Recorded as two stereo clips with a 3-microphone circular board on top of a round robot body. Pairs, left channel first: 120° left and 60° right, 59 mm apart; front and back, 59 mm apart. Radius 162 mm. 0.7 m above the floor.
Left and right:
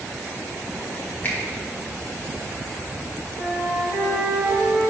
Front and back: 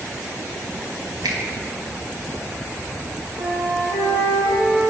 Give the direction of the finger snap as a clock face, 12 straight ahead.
6 o'clock.